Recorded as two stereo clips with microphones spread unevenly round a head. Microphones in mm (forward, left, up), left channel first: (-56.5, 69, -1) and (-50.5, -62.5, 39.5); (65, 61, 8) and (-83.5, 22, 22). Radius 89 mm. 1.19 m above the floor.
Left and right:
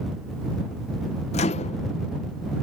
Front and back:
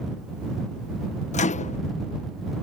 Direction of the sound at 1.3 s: 55° left.